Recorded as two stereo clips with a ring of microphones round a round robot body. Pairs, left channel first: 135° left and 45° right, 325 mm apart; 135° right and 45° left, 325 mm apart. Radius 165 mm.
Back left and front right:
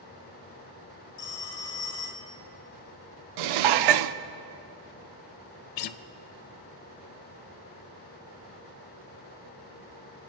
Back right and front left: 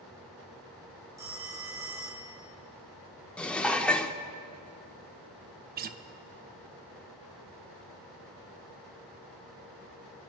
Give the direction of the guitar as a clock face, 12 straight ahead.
8 o'clock.